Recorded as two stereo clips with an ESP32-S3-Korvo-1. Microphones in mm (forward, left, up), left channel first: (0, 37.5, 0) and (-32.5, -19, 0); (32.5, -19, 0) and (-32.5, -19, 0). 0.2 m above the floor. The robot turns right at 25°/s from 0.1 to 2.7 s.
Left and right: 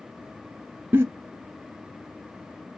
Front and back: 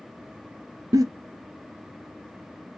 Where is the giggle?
175° right, 0.9 m; by 1.1 s 170° right, 0.9 m.